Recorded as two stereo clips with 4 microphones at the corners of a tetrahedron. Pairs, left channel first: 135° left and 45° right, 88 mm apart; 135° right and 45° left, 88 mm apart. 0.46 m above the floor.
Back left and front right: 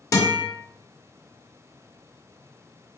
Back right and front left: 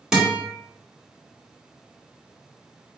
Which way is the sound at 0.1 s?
125° left.